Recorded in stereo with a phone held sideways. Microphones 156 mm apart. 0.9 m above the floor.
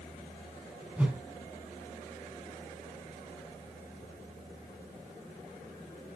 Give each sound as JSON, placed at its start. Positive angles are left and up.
{"t": 1.0, "sound": "a whoosh", "side_deg": -10, "distance_m": 2.0}